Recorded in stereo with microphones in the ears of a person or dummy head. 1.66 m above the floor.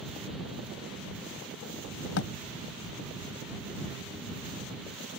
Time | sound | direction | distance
2.2 | a thud | 80° left | ?